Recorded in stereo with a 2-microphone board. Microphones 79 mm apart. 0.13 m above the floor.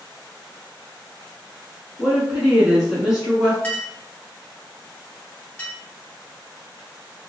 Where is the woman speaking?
10° right (ahead or behind), 1.2 m; by 3.5 s 5° right (ahead or behind), 1.2 m.